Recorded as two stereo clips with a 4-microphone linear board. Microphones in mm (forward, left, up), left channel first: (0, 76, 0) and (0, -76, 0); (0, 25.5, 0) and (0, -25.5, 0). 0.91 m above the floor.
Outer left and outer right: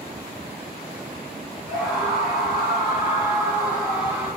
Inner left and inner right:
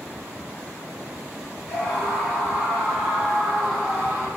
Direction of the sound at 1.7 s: Centre (ahead or behind).